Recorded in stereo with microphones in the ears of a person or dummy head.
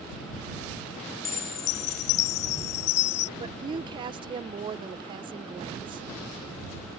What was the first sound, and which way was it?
A chime, 35° left (ahead or behind).